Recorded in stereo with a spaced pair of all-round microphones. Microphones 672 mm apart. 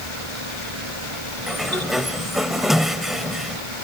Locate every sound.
0.0 s a fan: 45° right (ahead or behind)
1.5 s a sliding door: centre (ahead or behind)